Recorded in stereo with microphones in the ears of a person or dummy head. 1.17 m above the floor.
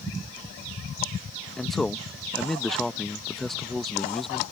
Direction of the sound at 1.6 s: 5° right (ahead or behind).